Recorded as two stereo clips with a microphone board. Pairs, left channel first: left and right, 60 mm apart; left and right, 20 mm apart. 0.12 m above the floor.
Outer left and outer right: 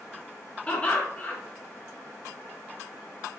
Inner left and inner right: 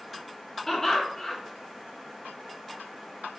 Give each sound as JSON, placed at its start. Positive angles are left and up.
{"t": 0.7, "sound": "laughter", "side_deg": 25, "distance_m": 1.7}